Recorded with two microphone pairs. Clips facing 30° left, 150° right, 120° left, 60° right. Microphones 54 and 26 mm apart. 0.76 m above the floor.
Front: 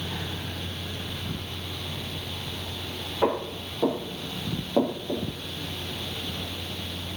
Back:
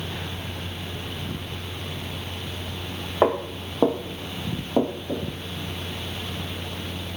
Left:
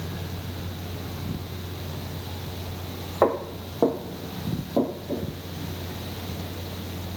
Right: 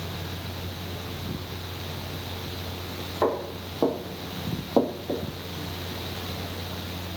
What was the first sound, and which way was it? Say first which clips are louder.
Footsteps: back 4 dB, left 3 dB; 175° right.